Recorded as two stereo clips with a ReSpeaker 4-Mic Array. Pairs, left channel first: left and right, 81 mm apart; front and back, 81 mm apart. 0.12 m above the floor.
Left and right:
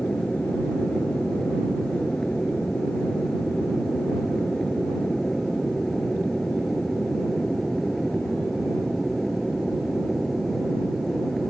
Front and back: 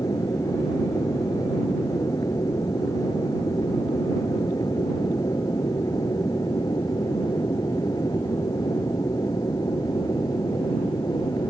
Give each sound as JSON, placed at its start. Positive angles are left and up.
{"t": 0.0, "sound": "an aircraft", "azimuth_deg": 15}